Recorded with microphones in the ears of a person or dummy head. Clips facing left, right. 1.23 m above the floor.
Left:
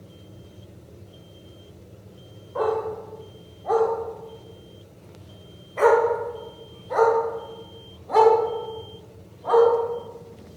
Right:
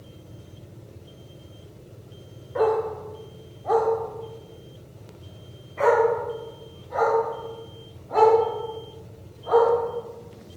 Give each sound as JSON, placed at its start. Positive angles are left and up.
{"t": 2.5, "sound": "a dog barking", "side_deg": -20, "distance_m": 1.7}